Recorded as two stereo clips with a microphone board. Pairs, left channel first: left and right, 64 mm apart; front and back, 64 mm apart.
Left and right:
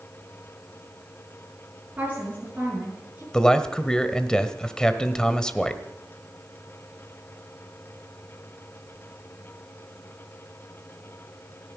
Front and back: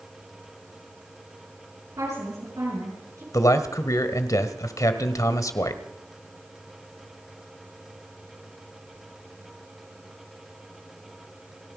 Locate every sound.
1.9 s a woman speaking: 155° right, 7.5 m
3.3 s a man speaking: 15° left, 1.5 m